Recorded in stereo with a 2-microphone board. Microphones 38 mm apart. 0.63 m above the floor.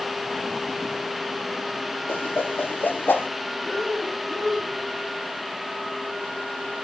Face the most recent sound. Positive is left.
turn(degrees=10)  # may be behind; listen again after turning